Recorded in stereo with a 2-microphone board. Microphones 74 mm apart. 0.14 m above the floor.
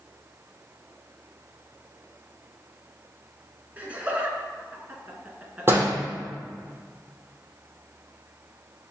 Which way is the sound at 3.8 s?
20° right (ahead or behind).